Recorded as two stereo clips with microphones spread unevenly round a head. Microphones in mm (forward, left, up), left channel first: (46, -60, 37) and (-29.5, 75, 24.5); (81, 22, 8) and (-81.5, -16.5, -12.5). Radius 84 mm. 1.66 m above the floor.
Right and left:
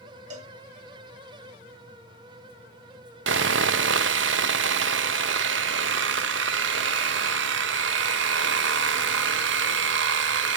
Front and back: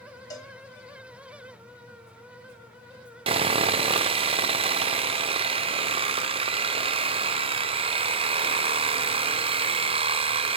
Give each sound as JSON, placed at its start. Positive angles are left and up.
{"t": 0.3, "sound": "a cowbell", "azimuth_deg": 75, "distance_m": 1.6}
{"t": 3.3, "sound": "sawing", "azimuth_deg": 135, "distance_m": 0.6}